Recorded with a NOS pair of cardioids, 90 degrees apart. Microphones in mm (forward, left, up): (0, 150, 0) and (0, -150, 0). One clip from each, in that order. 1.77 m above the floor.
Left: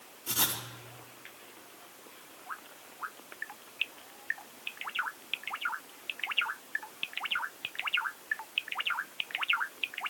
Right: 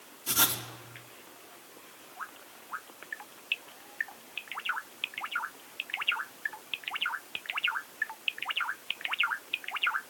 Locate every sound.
0.3 s writing: 25° right, 3.5 m